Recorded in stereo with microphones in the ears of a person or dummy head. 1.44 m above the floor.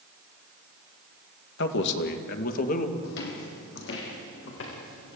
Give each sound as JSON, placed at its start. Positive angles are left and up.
{"t": 1.6, "sound": "a man speaking", "side_deg": 55, "distance_m": 2.0}
{"t": 3.0, "sound": "footsteps", "side_deg": 60, "distance_m": 3.5}